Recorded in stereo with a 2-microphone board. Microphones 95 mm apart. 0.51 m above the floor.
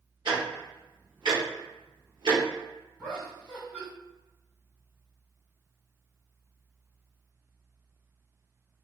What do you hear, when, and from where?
0.2 s ticking: 60° right (ahead or behind), 1.0 m
3.0 s laughter: 10° left (ahead or behind), 1.6 m